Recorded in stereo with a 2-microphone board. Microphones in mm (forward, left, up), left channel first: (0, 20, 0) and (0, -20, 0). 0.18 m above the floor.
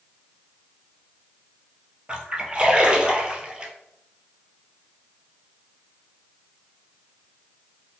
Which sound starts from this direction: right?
A splash, at 2.1 s.